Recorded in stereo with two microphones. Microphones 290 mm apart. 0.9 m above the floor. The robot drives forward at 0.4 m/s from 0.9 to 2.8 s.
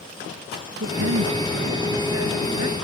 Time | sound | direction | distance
0.8 | a woman speaking | 55° right (ahead or behind) | ?